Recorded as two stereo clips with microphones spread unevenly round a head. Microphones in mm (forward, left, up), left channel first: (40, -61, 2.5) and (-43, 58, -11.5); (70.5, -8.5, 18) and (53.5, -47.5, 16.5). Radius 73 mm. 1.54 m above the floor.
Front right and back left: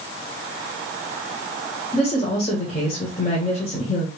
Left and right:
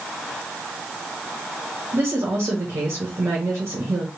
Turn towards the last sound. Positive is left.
turn(degrees=-100)